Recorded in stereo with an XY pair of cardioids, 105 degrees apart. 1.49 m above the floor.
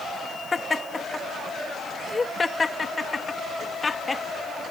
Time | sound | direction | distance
0.5 | laughter | 25° left | ?